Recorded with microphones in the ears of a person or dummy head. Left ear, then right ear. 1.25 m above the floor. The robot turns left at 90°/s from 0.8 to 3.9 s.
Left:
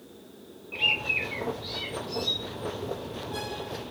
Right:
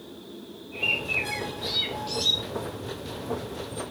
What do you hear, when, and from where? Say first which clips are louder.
0.7 s a bird: left 1 dB; 55° left, 0.9 m; by 2.4 s 85° right, 0.9 m